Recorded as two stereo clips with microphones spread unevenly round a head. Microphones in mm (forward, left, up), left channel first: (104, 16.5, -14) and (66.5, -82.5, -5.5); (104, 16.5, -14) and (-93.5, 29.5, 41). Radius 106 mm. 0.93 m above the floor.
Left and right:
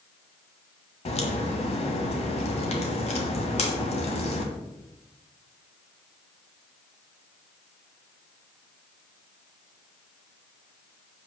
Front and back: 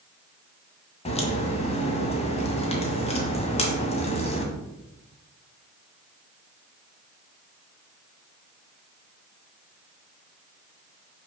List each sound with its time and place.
1.1 s a crack: 60° left, 1.7 m